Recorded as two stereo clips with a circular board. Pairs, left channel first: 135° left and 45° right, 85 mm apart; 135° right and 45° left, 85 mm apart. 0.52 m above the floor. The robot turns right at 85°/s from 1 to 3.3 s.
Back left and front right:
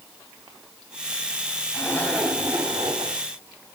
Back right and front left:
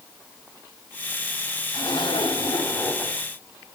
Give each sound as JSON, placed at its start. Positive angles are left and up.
{"t": 1.7, "sound": "a zipper", "azimuth_deg": -175, "distance_m": 3.0}